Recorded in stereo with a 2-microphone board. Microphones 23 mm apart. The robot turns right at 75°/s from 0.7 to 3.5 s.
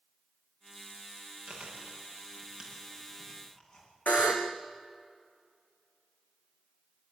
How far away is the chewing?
About 9.5 m.